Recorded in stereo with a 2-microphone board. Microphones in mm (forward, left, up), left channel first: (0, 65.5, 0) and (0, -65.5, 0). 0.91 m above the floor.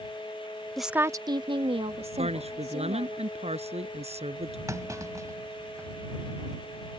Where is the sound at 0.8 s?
5° left (ahead or behind); by 3.2 s 55° right (ahead or behind).